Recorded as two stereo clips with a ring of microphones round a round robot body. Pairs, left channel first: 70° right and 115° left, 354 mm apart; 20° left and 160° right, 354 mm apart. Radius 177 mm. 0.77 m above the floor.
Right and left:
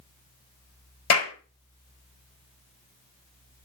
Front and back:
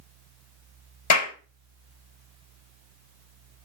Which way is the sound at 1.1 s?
20° right.